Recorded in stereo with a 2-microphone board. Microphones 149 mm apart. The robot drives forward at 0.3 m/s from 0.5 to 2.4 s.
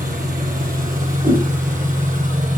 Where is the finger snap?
No finger snap in this recording.